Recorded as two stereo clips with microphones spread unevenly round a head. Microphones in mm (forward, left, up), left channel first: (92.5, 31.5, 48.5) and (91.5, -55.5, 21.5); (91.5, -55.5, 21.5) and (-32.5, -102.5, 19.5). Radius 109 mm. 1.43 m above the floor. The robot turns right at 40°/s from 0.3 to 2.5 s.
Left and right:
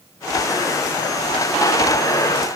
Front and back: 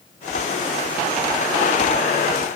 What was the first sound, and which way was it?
Only background noise.